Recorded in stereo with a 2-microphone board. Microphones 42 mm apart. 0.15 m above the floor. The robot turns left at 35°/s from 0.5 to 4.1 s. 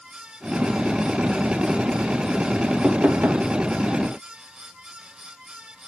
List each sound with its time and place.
2.8 s knocking: 35° right (ahead or behind), 2.5 m; by 3.5 s 55° right (ahead or behind), 2.5 m